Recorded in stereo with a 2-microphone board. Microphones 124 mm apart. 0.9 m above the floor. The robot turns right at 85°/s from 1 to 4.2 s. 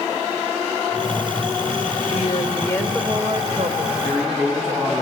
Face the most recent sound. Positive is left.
turn(degrees=-5)  # may be behind; listen again after turning